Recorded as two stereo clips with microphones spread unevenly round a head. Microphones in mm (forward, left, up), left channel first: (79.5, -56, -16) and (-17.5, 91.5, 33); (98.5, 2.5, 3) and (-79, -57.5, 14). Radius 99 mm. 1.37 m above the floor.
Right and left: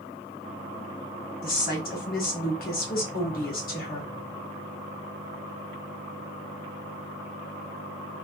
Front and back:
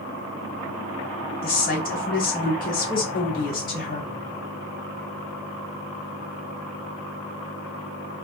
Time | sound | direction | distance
1.4 | a woman speaking | 25° right | 1.4 m